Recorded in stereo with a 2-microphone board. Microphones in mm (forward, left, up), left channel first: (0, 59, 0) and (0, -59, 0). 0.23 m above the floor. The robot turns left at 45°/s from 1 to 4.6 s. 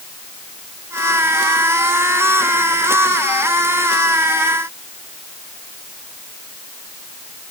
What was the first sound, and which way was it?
Only background noise.